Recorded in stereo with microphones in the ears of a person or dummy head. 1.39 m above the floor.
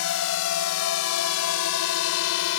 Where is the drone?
65° left (ahead or behind); by 2.6 s 70° left (ahead or behind).